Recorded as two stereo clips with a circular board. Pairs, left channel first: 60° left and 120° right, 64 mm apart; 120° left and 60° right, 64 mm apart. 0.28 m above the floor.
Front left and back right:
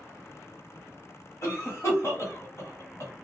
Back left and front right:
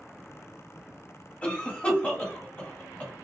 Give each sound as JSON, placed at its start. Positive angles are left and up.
{"t": 1.4, "sound": "a cough", "azimuth_deg": 60, "distance_m": 1.3}